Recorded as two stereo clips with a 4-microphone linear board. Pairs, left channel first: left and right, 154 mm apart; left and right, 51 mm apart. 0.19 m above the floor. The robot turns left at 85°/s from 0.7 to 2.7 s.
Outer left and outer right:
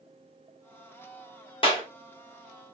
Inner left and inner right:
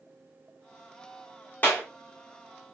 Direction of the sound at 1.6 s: 30° left (ahead or behind).